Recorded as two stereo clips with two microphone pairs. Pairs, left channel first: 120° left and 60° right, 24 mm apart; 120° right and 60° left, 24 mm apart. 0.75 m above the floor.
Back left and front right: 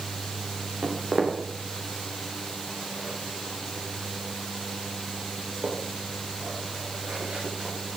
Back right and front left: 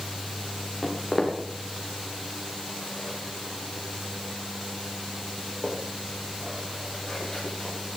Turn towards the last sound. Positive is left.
turn(degrees=-40)